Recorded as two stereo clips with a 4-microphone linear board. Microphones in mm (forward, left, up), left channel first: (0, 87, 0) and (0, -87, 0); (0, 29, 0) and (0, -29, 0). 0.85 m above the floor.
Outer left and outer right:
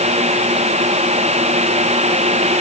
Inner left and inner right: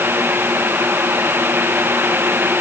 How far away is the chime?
No chime in this recording.